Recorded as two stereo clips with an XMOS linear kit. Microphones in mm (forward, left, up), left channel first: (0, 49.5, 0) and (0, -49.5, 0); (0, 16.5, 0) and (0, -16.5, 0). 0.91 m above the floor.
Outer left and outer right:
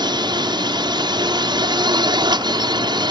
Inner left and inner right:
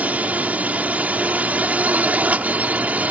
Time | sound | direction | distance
0.0 | a drone | 50° right (ahead or behind) | ?